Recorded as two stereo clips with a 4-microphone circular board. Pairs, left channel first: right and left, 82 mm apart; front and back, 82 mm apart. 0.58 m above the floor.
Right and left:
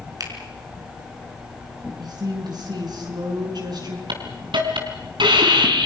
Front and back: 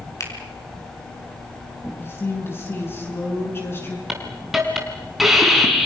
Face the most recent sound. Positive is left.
turn(degrees=95)